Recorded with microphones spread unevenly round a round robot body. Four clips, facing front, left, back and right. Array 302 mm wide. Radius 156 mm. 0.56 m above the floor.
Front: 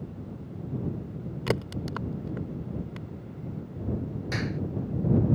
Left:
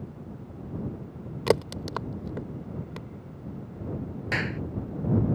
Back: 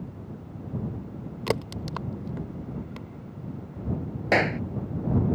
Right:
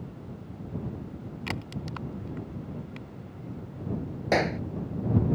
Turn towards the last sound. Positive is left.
turn(degrees=-145)